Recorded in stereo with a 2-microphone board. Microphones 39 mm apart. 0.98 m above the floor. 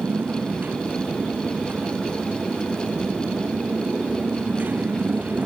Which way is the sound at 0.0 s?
50° right (ahead or behind).